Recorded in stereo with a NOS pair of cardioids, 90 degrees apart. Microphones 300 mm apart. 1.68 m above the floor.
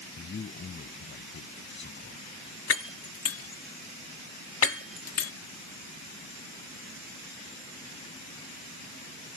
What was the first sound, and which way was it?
A man speaking, 40° left.